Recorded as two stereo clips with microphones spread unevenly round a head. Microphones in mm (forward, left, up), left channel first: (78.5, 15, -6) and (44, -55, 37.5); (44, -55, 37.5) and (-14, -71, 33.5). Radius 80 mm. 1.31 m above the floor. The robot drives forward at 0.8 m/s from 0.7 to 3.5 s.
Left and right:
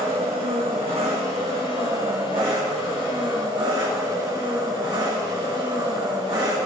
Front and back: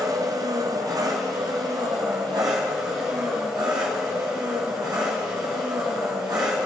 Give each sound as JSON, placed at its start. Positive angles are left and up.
{"t": 0.0, "sound": "an engine running", "azimuth_deg": -155, "distance_m": 1.5}